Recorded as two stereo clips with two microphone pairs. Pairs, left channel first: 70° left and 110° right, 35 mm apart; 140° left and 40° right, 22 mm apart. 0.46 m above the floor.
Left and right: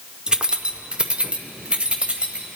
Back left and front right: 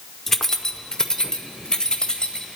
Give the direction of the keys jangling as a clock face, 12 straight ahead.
5 o'clock.